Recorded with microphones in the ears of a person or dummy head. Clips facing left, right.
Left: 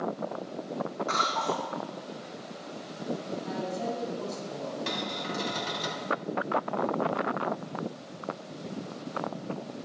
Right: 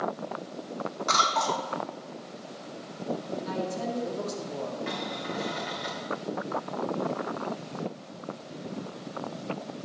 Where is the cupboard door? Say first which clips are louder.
Even; 60° left (ahead or behind), 4.5 m.